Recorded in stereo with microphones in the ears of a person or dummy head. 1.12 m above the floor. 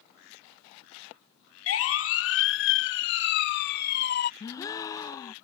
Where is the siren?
80° left; by 4.3 s 55° left (ahead or behind).